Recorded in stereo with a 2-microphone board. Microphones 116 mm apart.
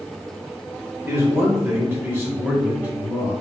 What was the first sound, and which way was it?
A man speaking, 20° right (ahead or behind).